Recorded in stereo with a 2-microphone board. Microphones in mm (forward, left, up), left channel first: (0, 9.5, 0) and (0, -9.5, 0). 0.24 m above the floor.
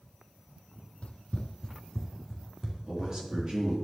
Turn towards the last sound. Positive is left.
turn(degrees=-30)  # may be behind; listen again after turning